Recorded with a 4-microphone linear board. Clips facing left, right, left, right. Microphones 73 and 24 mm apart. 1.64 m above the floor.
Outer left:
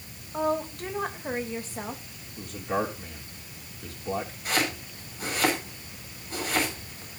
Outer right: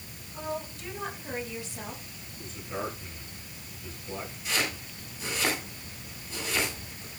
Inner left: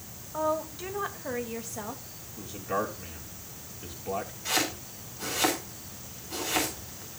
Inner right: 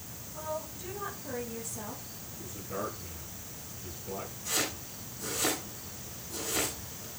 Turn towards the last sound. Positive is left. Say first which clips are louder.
# outer left 2 dB, inner left 4 dB
turn(degrees=45)  # may be behind; listen again after turning